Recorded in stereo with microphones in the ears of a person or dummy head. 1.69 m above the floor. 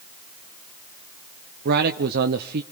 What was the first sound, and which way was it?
A man speaking, 55° right (ahead or behind).